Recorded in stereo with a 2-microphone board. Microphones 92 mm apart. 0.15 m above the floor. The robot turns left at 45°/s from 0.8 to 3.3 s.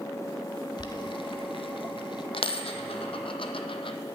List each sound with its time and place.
0.8 s boiling: 50° left (ahead or behind), 0.6 m
2.3 s a dropped coin: 70° left (ahead or behind), 0.6 m; by 4.0 s 65° left (ahead or behind), 0.6 m